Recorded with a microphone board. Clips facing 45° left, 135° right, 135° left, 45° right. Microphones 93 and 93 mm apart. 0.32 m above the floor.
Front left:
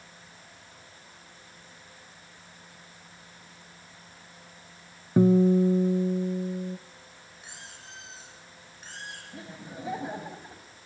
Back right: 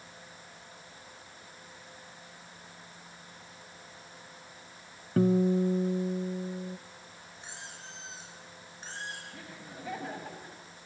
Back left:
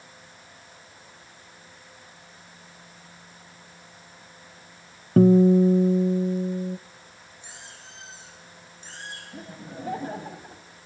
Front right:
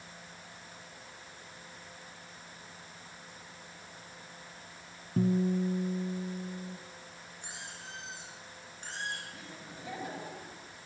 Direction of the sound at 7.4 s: 75° right.